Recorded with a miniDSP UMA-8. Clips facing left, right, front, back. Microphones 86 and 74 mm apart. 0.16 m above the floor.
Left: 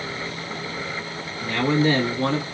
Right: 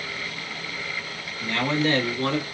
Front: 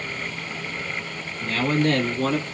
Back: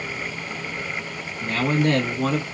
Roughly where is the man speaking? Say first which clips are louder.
Left 4 dB, even; behind.